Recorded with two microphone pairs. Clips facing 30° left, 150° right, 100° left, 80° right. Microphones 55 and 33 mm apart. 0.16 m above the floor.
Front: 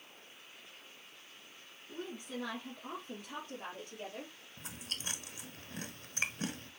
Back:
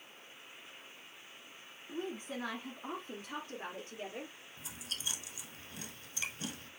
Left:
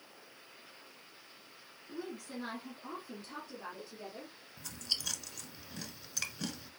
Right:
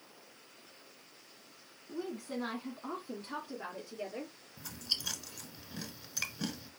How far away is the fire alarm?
No fire alarm in this recording.